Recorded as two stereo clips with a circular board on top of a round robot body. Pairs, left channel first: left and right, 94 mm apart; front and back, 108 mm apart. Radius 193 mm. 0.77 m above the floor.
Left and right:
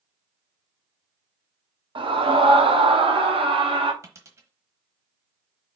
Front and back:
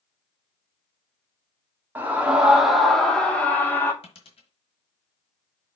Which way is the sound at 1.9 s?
110° right.